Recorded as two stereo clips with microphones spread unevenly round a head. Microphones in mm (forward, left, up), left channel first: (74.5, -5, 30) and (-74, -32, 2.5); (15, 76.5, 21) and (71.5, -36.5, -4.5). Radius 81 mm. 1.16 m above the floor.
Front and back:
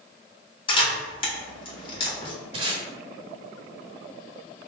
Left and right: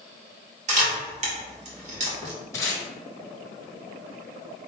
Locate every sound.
0.7 s a camera shutter: 50° right, 1.6 m
2.5 s tape being pulled: 135° left, 0.9 m